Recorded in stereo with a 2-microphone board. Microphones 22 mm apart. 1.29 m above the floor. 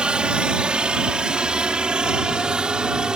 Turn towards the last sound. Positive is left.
turn(degrees=-40)  # may be behind; listen again after turning